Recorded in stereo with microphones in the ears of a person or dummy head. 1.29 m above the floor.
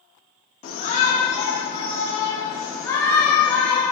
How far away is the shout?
About 3.5 m.